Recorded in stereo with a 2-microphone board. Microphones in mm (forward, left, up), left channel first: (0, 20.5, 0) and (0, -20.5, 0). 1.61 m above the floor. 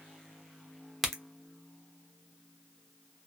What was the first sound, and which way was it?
A crack, 5° left (ahead or behind).